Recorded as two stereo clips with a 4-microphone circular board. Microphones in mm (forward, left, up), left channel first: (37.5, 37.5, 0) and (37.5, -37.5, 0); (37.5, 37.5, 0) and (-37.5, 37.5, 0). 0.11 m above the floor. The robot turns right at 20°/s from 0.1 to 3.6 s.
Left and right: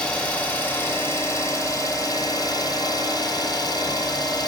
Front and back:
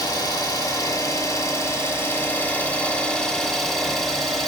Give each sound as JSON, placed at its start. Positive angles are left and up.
{"t": 0.0, "sound": "an engine running", "azimuth_deg": 20, "distance_m": 1.4}